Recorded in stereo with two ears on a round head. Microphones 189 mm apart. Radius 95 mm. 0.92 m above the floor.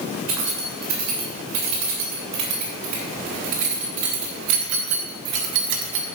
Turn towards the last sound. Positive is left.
turn(degrees=-55)  # may be behind; listen again after turning